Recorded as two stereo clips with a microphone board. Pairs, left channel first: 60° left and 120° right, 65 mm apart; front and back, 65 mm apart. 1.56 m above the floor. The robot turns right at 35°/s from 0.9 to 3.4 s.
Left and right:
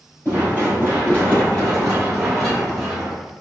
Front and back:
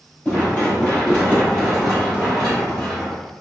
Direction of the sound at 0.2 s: 45° left.